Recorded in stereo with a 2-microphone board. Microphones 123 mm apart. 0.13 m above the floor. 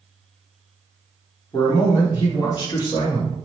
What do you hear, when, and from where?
1.5 s a man speaking: 30° left (ahead or behind), 1.4 m; by 3.4 s 35° left (ahead or behind), 2 m